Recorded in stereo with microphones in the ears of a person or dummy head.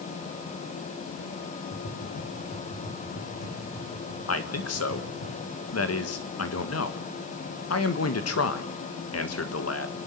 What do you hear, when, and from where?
1.7 s tapping: 55° left (ahead or behind), 9.5 m
4.3 s a man speaking: 70° left (ahead or behind), 1.7 m